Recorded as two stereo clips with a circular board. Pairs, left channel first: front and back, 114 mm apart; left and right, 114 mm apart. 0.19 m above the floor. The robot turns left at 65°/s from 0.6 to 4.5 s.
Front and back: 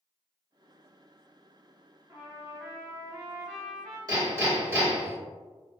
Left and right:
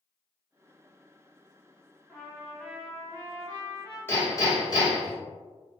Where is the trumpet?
160° right, 1.2 m; by 4.0 s 80° left, 1.2 m.